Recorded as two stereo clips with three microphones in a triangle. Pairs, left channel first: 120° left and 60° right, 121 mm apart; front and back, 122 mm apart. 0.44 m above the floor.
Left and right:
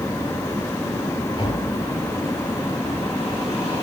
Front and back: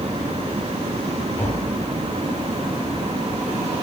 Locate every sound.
1.4 s tapping: 70° left, 9 m